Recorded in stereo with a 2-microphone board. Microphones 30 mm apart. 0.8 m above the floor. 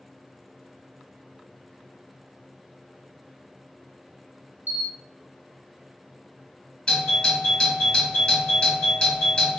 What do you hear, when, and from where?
4.7 s a camera shutter: 75° right (ahead or behind), 0.7 m
6.9 s a doorbell: 30° left (ahead or behind), 1.4 m